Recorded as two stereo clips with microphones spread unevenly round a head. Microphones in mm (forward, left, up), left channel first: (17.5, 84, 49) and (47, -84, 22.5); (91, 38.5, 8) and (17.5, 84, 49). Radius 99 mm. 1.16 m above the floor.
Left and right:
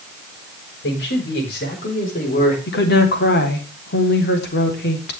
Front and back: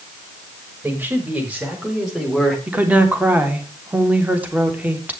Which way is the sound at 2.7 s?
75° left.